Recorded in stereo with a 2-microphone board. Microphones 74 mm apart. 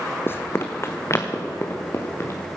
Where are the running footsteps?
30° left (ahead or behind), 1.1 m; by 2.4 s 40° left (ahead or behind), 4 m.